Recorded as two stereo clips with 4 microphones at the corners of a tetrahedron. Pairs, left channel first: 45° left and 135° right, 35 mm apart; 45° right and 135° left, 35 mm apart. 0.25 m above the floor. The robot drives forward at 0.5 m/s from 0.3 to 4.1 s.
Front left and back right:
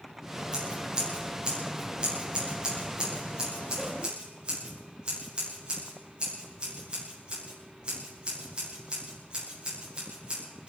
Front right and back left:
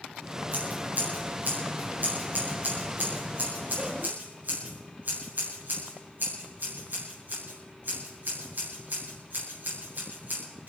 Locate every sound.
0.5 s scissors: 155° left, 5.5 m; by 10.7 s 160° left, 7 m